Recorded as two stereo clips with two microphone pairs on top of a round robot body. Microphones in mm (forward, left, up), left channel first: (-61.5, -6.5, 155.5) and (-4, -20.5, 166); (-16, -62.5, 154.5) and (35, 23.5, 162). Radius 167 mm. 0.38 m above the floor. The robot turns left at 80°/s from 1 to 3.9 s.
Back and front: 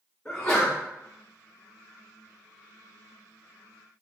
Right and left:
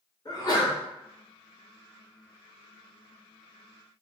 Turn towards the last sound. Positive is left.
turn(degrees=-5)